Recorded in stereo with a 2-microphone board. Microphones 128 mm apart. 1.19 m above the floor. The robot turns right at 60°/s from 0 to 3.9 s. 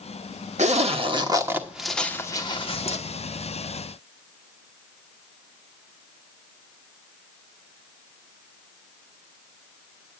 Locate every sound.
0.6 s a zipper: 65° right (ahead or behind), 1.2 m; by 3.0 s 55° left (ahead or behind), 1.2 m